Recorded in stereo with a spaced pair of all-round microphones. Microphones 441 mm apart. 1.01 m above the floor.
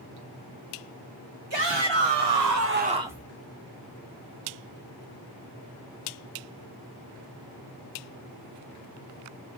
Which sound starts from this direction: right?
A shout, at 1.5 s.